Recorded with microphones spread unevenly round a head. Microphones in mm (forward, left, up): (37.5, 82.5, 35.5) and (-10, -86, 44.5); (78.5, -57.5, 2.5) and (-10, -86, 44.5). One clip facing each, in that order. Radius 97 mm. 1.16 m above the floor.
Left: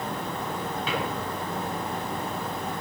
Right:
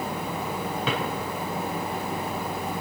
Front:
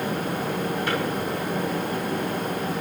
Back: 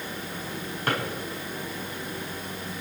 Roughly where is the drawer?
Behind right.